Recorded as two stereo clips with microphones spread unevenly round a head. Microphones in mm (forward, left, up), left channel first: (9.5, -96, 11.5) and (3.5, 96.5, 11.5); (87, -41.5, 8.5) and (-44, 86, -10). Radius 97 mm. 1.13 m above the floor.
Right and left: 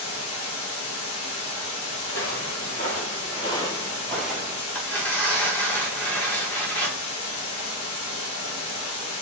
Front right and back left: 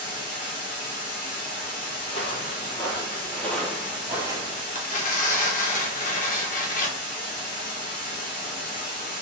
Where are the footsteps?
85° right, 1.6 m; by 4.7 s 140° left, 1.1 m.